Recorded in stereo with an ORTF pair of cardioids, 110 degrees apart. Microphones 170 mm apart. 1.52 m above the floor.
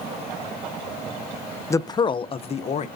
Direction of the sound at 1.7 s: 15° left.